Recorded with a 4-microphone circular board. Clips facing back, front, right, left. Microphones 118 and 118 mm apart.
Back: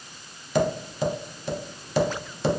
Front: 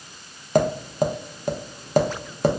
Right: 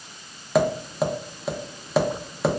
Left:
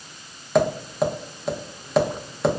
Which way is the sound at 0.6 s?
5° right.